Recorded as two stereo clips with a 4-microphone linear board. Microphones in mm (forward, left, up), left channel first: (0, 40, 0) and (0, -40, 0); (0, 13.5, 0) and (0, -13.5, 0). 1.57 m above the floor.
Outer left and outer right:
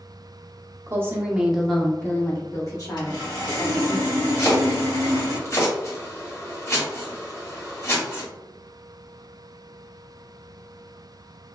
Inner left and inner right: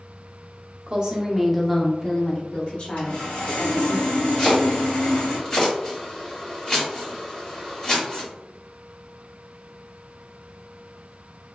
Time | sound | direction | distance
0.9 | a woman speaking | 35° right (ahead or behind) | 0.9 m
3.0 | sawing | 65° left (ahead or behind) | 1.6 m
4.4 | chopping | 35° left (ahead or behind) | 1.6 m